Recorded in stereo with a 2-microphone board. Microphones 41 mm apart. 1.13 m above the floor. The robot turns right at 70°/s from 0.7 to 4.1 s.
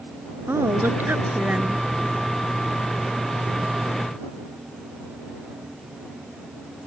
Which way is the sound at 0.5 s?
95° right.